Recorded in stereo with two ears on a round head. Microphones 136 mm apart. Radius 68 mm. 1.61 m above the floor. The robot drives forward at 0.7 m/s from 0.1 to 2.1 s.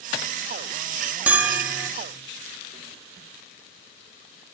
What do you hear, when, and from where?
1.3 s a bell: 10° right (ahead or behind), 2.5 m; by 1.9 s 15° right (ahead or behind), 1.9 m